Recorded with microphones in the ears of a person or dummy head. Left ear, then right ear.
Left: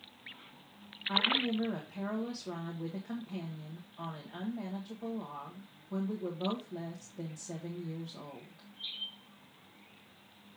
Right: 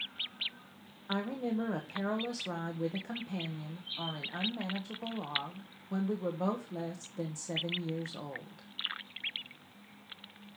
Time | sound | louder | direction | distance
1.1 | a woman speaking | left 6 dB | 65° right (ahead or behind) | 1.1 m